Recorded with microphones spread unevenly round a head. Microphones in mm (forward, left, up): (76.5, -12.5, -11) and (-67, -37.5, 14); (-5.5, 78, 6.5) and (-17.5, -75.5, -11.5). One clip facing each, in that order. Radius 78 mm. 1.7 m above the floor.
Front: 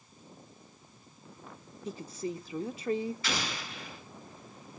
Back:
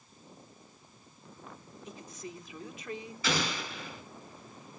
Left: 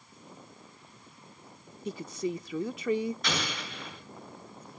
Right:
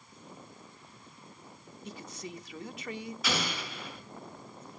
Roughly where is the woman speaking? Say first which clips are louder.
Front 9 dB, left 10 dB; left.